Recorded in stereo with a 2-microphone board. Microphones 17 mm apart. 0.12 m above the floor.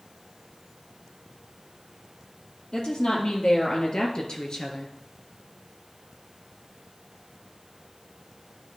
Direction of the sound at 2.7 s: 65° left (ahead or behind).